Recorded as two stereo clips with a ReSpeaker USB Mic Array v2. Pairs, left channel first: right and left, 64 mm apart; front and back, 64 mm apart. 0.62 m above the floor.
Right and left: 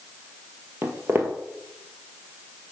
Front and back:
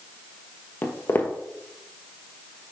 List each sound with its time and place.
0.8 s footsteps: 50° left, 1.0 m